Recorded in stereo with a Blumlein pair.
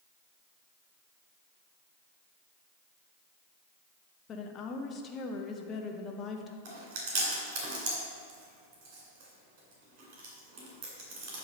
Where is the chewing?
45° right, 2.5 m.